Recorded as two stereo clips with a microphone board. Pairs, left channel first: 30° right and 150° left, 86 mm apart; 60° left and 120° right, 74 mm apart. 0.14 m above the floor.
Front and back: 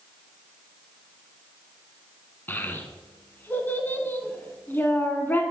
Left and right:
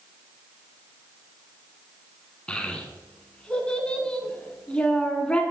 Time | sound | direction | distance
2.5 | a child speaking | straight ahead | 0.7 m